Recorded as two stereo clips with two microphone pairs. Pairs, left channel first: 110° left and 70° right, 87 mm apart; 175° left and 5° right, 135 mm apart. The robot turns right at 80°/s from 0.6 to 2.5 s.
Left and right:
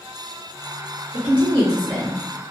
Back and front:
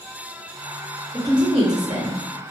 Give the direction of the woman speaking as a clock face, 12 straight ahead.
3 o'clock.